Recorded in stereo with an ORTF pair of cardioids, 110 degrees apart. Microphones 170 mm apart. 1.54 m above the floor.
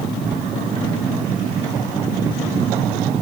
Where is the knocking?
I don't hear knocking.